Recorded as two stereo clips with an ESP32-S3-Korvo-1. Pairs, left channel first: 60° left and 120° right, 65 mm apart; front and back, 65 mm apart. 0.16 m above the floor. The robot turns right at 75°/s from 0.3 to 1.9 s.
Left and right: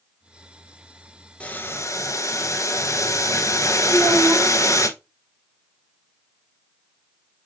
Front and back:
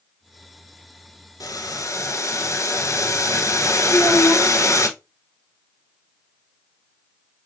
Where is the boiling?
10° right, 0.7 m; by 4.9 s 30° left, 0.7 m.